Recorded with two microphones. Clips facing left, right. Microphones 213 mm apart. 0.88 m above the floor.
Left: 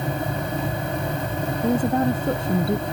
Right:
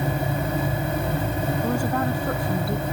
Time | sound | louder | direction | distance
1.6 | a woman speaking | left 7 dB | 20° left (ahead or behind) | ?